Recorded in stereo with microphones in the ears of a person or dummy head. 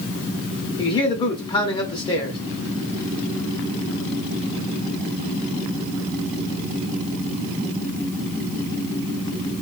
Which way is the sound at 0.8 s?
30° left (ahead or behind).